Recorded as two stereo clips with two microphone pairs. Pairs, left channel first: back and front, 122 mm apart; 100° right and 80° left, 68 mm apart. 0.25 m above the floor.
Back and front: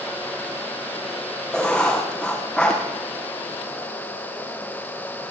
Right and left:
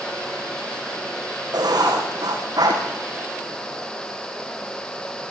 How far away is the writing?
About 6 m.